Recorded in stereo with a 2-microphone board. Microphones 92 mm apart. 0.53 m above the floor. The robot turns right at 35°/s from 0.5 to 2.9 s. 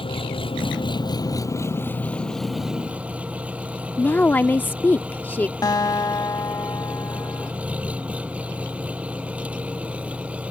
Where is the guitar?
45° left (ahead or behind).